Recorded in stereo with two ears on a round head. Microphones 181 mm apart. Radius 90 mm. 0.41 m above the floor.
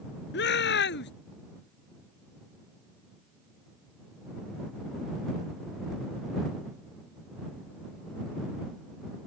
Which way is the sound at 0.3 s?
55° left (ahead or behind).